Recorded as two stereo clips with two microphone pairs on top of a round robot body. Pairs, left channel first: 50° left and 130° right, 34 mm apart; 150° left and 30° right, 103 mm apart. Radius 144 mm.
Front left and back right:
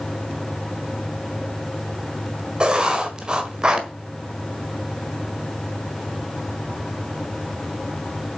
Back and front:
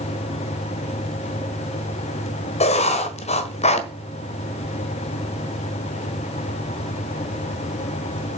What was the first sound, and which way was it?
Writing, 165° left.